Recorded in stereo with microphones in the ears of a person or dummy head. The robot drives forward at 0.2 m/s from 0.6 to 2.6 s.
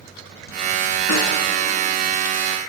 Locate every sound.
1.1 s a snare drum: 70° left (ahead or behind), 2.5 m